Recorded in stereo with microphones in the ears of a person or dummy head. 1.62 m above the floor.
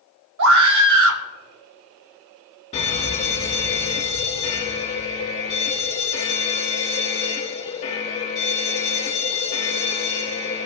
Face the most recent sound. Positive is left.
turn(degrees=30)  # may be behind; listen again after turning